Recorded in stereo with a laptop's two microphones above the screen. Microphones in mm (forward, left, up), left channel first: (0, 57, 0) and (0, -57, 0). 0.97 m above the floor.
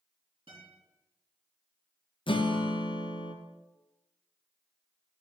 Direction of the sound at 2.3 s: 50° left (ahead or behind).